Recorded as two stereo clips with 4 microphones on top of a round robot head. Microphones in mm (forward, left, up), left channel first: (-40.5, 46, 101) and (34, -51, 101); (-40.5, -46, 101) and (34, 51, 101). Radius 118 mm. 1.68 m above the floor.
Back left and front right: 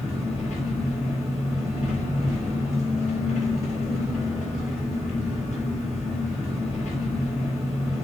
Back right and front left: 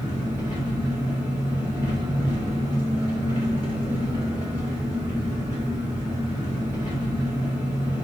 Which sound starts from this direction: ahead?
An engine running, at 0.0 s.